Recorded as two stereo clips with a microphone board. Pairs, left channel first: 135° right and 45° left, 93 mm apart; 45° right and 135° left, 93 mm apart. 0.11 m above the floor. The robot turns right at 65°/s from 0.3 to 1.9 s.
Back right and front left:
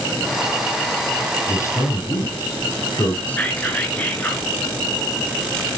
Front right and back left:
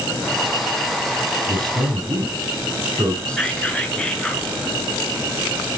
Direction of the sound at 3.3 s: 100° right.